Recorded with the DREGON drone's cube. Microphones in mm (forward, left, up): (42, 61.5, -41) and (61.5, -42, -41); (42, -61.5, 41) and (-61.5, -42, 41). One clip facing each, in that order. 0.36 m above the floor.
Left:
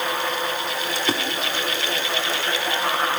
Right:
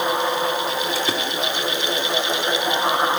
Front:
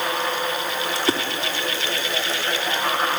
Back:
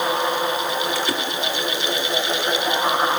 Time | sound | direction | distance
0.9 | a splash | straight ahead | 1.5 m